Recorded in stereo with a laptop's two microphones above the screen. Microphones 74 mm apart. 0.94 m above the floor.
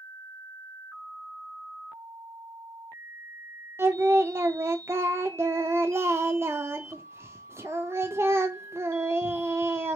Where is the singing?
35° right (ahead or behind), 0.5 m.